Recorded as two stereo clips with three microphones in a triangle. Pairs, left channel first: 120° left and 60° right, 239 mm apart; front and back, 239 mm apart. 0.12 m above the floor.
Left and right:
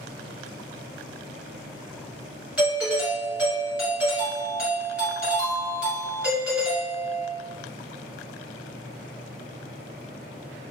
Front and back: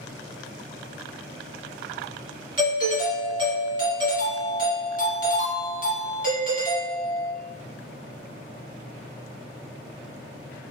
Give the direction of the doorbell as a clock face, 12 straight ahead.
5 o'clock.